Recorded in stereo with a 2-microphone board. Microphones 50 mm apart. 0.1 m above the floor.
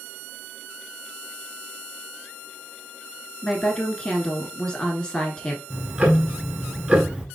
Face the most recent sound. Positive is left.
turn(degrees=-20)  # may be behind; listen again after turning